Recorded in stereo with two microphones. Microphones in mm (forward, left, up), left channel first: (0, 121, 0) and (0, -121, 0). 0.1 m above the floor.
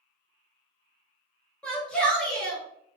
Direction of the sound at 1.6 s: 5° left (ahead or behind).